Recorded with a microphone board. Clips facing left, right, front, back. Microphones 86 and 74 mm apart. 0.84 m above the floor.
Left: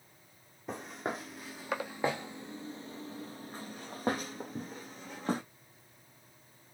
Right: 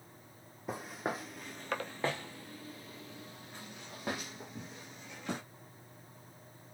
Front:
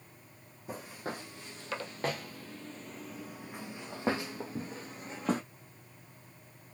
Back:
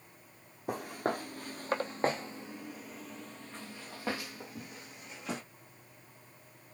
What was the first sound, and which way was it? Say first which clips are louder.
Footsteps: even, back 6 dB; 175° right.